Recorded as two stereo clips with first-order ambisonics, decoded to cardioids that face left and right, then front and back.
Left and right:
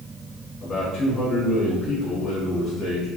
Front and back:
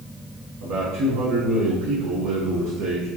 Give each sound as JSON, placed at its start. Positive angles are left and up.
{"t": 0.6, "sound": "a man speaking", "azimuth_deg": 160, "distance_m": 1.0}